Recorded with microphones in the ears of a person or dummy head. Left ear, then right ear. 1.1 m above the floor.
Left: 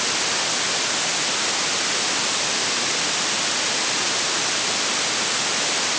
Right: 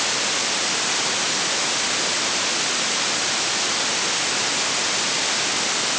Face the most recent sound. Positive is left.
No sound to turn to.